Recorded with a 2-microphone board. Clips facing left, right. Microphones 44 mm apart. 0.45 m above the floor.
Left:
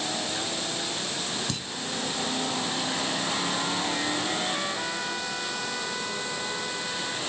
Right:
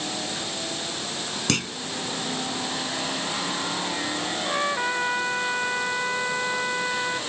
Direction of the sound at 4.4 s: 30° right (ahead or behind).